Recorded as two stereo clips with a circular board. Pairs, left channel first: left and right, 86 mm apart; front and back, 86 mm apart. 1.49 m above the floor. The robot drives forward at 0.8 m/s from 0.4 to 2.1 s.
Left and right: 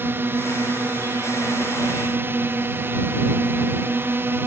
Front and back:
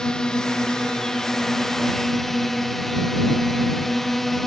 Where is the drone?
70° right; by 4.5 s 85° right.